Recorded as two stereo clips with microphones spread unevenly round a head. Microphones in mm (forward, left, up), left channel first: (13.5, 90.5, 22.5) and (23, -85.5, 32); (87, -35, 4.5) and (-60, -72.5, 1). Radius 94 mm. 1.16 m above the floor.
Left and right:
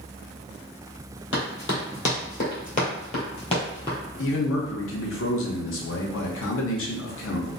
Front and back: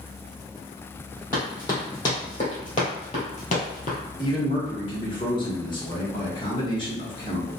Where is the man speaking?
80° left, 0.8 m.